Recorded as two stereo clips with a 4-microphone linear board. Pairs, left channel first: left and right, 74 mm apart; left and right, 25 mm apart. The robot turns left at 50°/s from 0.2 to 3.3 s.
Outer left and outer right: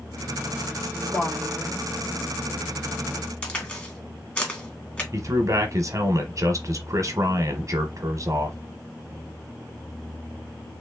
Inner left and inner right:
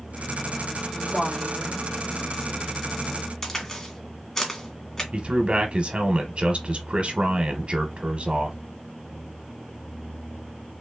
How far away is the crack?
About 1.8 m.